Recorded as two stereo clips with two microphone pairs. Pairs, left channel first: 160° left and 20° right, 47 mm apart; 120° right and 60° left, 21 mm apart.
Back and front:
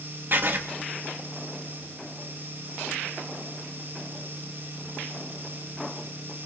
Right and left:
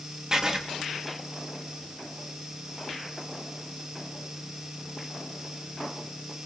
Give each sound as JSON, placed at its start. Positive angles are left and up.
{"t": 0.3, "sound": "writing", "azimuth_deg": 5, "distance_m": 1.4}